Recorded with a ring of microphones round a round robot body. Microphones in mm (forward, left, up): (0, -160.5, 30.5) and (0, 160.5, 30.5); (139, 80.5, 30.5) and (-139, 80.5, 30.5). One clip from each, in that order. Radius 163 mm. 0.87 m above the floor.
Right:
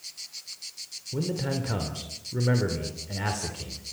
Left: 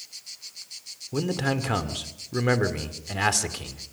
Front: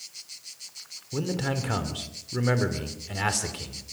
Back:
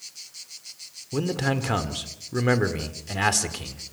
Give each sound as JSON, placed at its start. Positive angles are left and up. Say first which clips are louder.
{"t": 1.1, "sound": "a man speaking", "louder": "left 4 dB, back 4 dB", "azimuth_deg": 120, "distance_m": 2.5}